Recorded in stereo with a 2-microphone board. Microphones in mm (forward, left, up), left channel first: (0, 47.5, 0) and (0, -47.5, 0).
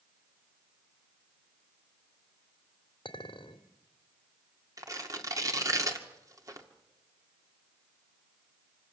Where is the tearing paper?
35° right (ahead or behind), 2 m.